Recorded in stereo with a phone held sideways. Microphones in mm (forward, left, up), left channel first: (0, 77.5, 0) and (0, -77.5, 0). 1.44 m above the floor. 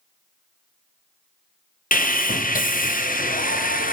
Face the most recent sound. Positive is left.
turn(degrees=65)  # may be behind; listen again after turning